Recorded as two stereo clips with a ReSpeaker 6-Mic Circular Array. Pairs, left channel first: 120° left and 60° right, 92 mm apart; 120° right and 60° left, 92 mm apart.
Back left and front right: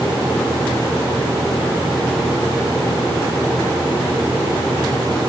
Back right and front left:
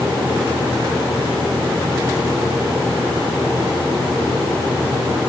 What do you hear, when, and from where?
Only background noise.